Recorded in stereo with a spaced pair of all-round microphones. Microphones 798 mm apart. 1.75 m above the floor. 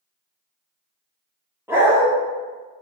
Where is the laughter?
I don't hear laughter.